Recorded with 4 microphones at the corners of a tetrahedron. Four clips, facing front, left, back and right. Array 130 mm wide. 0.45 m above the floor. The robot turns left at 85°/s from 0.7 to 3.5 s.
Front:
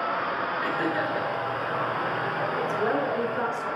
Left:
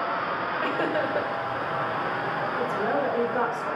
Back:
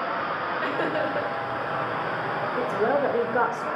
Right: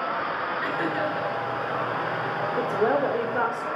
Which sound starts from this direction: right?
A woman speaking, at 2.6 s.